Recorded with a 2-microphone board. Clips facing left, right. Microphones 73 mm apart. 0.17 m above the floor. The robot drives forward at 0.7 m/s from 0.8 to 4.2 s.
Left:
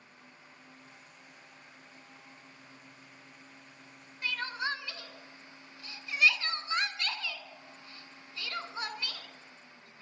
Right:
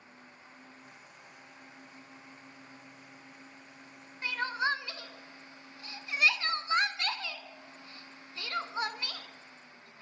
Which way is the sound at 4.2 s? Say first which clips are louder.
Right 3 dB; 25° right (ahead or behind).